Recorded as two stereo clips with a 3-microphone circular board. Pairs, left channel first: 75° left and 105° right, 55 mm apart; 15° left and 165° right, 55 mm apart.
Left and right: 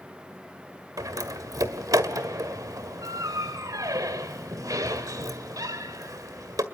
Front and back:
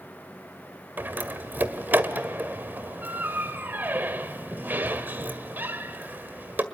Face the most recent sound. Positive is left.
turn(degrees=-110)